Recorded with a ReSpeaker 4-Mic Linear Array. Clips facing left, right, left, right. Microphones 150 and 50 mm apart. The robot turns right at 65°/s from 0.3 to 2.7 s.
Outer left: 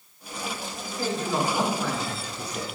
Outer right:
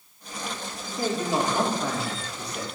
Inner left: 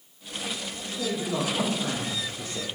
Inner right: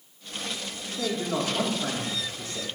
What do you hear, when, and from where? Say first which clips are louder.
1.0 s a man speaking: outer right 1 dB, even; 80° right, 0.8 m; by 2.6 s 30° left, 0.8 m